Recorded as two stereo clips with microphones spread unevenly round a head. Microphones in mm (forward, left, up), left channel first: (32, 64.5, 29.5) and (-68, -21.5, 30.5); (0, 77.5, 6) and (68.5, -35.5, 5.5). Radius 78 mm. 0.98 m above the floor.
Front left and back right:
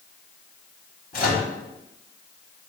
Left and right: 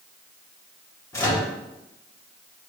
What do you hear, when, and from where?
1.1 s a microwave: 55° left, 2 m